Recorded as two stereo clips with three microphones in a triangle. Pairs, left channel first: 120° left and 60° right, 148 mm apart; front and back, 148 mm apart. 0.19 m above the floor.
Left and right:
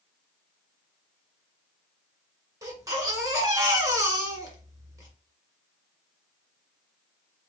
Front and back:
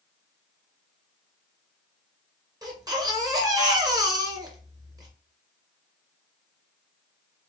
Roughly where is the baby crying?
Behind right.